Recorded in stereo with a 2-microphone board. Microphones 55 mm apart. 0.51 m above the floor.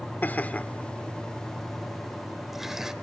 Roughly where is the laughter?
Left.